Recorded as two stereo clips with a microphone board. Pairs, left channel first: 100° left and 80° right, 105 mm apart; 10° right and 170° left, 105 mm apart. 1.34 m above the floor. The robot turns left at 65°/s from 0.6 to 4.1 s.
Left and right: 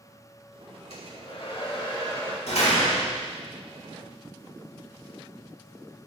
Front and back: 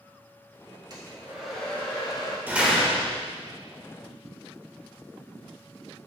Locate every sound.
0.9 s a hair dryer: 120° left, 1.7 m; by 2.4 s 25° left, 1.7 m
2.5 s a door slam: 100° left, 1.7 m; by 3.2 s 50° left, 1.7 m